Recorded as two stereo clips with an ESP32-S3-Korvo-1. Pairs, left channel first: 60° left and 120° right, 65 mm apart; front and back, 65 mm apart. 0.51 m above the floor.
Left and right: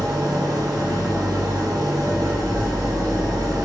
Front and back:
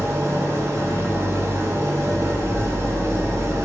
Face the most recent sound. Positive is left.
turn(degrees=-130)